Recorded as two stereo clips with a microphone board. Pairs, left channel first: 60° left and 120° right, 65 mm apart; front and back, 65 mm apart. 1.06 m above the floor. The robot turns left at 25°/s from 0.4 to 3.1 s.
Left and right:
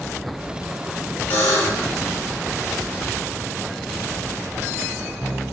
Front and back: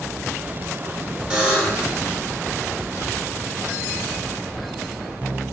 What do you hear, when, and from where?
1.3 s a buzzer: 115° left, 1.0 m; by 1.9 s 100° left, 1.0 m